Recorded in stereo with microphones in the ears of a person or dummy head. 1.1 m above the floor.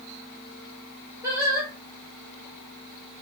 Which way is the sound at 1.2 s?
10° right (ahead or behind).